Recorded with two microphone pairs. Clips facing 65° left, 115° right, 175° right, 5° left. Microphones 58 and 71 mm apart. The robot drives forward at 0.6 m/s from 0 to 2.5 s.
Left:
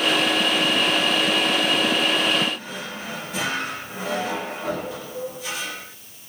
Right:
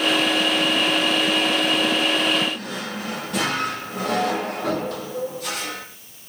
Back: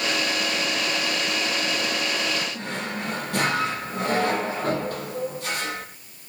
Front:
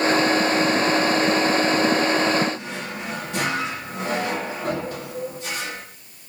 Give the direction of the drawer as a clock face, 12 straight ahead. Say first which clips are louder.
Right 3 dB, even; 5 o'clock.